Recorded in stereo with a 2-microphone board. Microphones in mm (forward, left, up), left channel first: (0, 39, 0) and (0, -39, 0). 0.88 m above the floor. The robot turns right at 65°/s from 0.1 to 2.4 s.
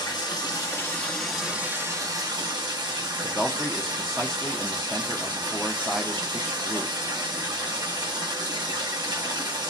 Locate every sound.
0.0 s running water: 100° left, 0.9 m; by 9.7 s 110° right, 0.9 m
3.2 s a man speaking: 10° left (ahead or behind), 0.5 m